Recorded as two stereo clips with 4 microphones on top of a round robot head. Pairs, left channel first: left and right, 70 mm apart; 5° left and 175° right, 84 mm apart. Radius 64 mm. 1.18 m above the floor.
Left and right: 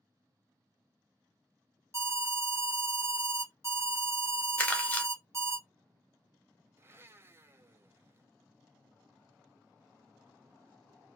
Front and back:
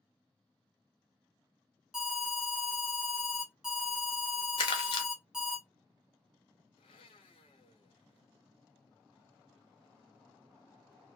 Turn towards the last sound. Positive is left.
turn(degrees=-30)